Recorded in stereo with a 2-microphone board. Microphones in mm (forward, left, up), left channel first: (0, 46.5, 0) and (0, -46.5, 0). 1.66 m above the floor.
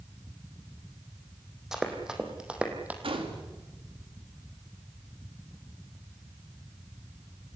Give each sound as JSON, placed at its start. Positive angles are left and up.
{"t": 1.7, "sound": "running footsteps", "side_deg": -5, "distance_m": 3.5}
{"t": 3.0, "sound": "a gunshot", "side_deg": -75, "distance_m": 3.0}